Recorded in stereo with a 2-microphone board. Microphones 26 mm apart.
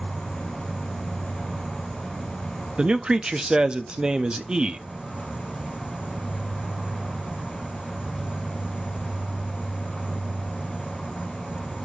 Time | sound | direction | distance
0.0 | an insect | 50° right (ahead or behind) | 4.5 m
2.8 | a man speaking | 30° right (ahead or behind) | 0.6 m